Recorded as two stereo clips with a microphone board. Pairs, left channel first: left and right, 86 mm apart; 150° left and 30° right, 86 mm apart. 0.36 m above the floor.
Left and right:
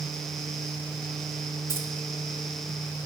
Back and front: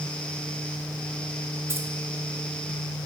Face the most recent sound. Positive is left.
turn(degrees=-60)